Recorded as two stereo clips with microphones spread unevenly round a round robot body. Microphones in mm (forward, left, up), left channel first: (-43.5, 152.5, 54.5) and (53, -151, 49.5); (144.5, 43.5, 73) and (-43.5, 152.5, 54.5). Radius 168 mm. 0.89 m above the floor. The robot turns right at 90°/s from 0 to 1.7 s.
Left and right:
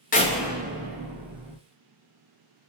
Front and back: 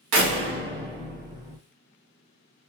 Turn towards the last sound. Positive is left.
turn(degrees=-45)